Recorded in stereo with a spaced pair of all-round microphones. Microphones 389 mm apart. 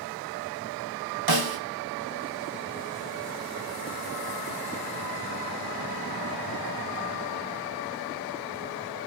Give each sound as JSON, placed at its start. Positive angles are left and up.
{"t": 1.3, "sound": "a snare drum", "side_deg": -70, "distance_m": 0.8}